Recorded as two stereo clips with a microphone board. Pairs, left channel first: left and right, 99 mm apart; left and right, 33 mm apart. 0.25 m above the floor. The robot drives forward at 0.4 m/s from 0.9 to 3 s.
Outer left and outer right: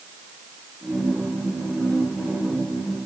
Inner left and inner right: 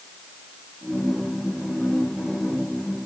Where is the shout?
No shout in this recording.